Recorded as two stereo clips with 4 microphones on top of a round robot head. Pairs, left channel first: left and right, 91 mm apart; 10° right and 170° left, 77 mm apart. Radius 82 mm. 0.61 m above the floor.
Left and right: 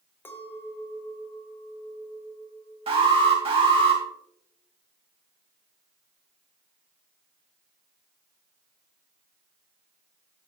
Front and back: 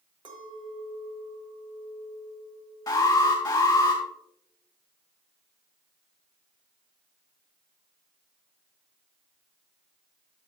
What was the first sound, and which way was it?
A clink, 160° left.